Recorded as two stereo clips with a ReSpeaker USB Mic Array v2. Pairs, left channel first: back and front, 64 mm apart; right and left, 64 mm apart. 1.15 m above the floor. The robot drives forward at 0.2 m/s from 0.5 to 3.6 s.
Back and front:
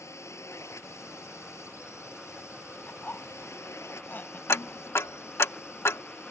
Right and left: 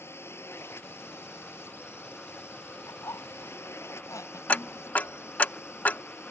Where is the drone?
140° right; by 6.3 s 135° right.